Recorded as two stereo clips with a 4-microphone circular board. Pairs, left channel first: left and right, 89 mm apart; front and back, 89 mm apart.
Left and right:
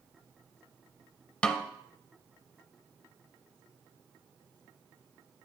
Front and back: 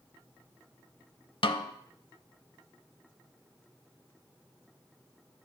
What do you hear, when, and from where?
1.4 s a snare drum: 10° left, 0.6 m